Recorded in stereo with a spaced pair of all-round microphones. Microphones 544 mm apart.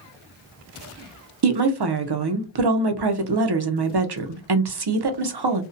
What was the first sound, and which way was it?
A woman speaking, 50° right (ahead or behind).